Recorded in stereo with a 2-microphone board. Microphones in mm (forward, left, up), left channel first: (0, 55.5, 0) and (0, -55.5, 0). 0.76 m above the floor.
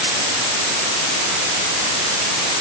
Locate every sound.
Only background noise.